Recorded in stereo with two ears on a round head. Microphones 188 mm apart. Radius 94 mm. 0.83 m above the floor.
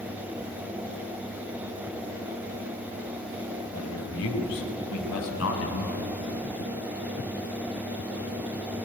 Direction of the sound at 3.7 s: 85° left.